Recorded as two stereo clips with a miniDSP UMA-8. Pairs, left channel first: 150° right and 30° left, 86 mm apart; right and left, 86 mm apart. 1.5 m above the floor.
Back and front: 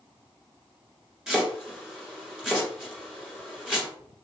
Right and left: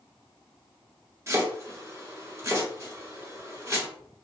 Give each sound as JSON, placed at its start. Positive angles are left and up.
{"t": 1.3, "sound": "chopping", "azimuth_deg": 110, "distance_m": 1.4}